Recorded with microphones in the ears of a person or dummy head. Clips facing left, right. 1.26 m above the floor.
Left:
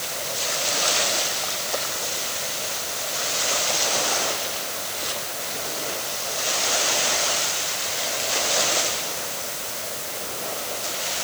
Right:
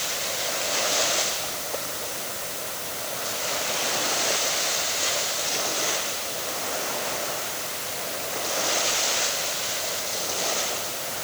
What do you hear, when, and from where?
Only background noise.